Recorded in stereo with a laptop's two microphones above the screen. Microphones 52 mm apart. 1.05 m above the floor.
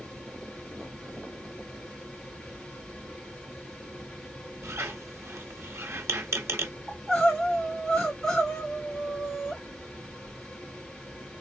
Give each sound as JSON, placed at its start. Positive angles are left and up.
{"t": 0.0, "sound": "a fan", "side_deg": 5, "distance_m": 2.5}
{"t": 4.6, "sound": "a squeak", "side_deg": -60, "distance_m": 0.9}
{"t": 6.9, "sound": "crying", "side_deg": 10, "distance_m": 2.5}